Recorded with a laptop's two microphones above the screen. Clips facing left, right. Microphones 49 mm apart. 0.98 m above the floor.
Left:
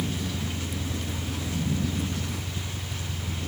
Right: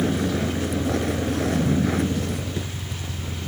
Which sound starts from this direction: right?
A vehicle, at 0.0 s.